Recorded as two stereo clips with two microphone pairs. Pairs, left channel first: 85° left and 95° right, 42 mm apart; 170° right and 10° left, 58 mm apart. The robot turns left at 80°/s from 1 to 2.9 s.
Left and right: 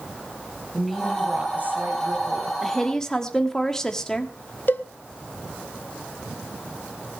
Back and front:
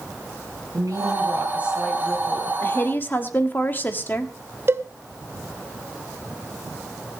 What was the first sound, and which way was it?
A woman speaking, 5° right.